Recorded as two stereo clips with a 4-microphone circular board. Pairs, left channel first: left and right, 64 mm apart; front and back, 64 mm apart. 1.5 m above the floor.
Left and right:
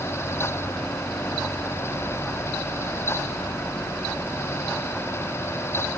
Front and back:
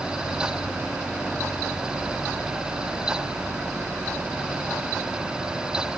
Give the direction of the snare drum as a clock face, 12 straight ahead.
I don't hear a snare drum.